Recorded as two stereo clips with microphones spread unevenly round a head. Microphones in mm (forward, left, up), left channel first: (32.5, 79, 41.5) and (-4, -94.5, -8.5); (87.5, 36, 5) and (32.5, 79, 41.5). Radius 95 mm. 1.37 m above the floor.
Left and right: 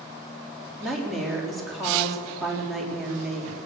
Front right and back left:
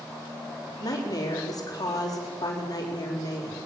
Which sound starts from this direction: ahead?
A woman speaking, at 0.8 s.